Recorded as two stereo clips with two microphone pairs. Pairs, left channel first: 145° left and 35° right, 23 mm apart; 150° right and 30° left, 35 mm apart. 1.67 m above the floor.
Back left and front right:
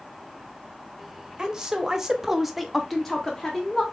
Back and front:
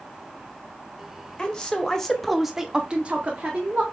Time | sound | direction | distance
1.4 | a woman speaking | 90° right | 1.1 m